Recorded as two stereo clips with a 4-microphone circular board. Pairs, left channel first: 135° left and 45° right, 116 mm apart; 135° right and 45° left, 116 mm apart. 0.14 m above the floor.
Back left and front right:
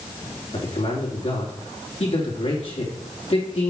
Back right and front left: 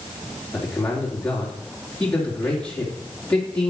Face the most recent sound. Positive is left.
turn(degrees=145)